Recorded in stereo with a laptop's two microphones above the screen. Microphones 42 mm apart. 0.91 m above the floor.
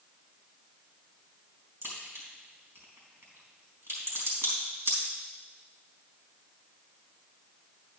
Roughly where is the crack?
Right.